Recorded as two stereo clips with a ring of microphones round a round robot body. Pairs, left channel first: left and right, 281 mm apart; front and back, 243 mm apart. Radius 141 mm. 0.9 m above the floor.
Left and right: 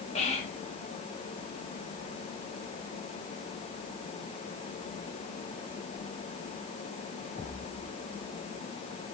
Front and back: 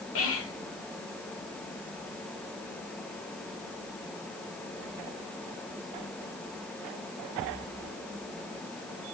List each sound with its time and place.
0.1 s whispering: 25° left, 1.3 m